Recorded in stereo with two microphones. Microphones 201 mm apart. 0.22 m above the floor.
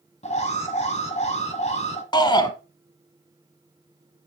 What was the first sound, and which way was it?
An alarm, 35° left (ahead or behind).